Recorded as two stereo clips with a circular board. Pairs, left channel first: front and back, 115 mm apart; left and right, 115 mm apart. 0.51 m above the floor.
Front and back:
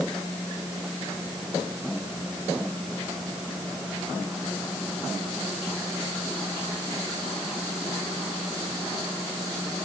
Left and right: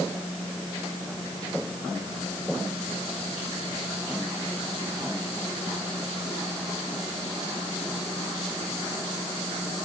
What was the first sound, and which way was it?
Only background noise.